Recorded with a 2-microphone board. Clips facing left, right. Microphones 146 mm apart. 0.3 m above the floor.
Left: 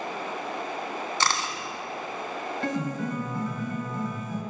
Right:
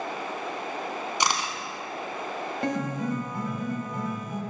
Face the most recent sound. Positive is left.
turn(degrees=-20)  # may be behind; listen again after turning